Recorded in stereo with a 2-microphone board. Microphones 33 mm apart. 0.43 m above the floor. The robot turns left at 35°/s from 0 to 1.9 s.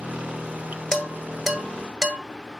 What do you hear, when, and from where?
0.9 s dishes clattering: 10° left (ahead or behind), 1.5 m; by 2.2 s 20° right (ahead or behind), 1.5 m